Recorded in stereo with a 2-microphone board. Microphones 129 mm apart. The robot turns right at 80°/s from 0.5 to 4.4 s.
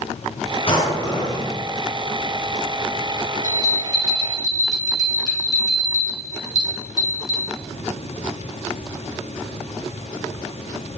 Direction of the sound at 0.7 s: 135° left.